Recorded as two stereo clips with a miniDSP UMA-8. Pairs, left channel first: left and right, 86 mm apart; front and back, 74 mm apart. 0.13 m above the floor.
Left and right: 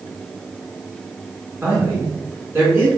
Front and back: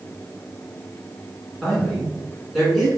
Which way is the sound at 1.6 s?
90° right.